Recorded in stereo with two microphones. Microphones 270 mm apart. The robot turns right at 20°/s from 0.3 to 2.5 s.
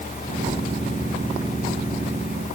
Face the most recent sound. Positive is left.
No sound to turn to.